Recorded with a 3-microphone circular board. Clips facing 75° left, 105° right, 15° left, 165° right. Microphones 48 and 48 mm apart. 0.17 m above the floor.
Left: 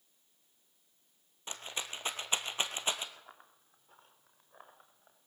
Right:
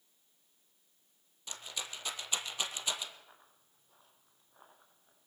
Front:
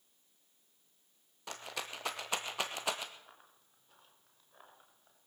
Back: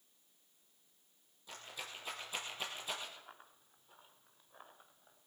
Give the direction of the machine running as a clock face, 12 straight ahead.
I don't hear a machine running.